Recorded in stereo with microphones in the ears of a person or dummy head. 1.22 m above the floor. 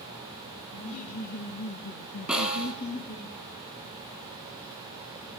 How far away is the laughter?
About 1.9 m.